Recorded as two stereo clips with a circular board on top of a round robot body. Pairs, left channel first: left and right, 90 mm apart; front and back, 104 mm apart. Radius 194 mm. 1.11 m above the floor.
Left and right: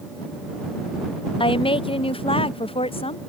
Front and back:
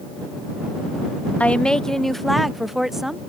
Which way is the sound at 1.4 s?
75° left.